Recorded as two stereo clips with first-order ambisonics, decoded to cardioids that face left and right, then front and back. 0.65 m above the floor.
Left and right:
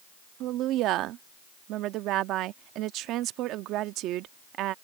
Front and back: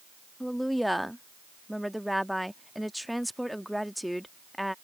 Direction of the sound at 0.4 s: 90° right.